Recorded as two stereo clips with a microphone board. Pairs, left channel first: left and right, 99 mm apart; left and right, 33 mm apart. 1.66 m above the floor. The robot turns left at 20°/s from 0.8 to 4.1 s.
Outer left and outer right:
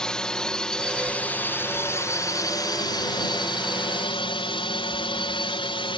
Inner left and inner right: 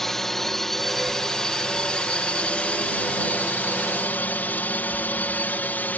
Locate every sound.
0.0 s a drone: 170° left; by 6.0 s 105° left